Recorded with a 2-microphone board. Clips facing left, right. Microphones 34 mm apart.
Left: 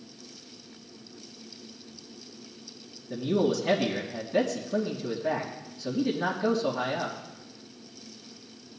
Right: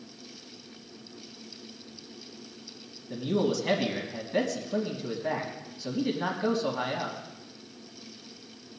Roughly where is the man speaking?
Centre.